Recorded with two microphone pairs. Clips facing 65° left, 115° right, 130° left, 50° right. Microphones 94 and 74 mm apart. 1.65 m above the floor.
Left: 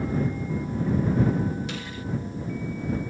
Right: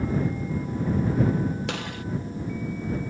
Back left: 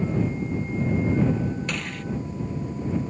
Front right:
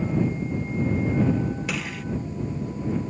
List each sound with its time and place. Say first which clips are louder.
1.7 s a gunshot: right 3 dB, front right 1 dB; 140° right